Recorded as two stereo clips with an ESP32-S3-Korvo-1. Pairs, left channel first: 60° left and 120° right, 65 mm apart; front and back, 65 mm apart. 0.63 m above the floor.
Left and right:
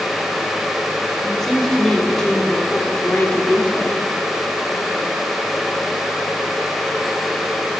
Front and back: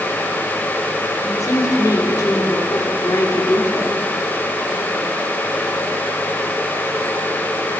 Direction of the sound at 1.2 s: 25° right.